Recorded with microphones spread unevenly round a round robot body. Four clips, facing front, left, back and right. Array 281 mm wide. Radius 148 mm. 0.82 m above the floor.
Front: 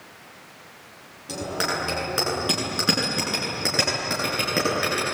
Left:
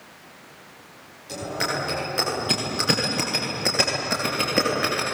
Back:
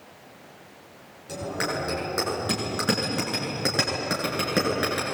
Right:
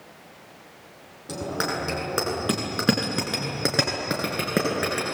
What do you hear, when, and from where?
1.3 s a bicycle bell: 70° right, 8.5 m; by 5.2 s 100° right, 10.5 m